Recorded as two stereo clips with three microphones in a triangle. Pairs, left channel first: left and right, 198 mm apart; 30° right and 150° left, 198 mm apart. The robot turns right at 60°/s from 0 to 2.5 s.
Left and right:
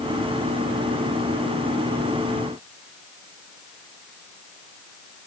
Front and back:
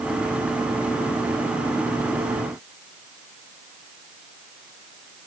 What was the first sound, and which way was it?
Only background noise.